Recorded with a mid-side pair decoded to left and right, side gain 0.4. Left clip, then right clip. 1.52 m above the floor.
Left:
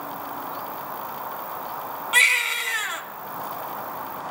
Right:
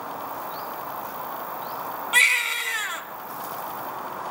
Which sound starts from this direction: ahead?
A baby crying, at 2.1 s.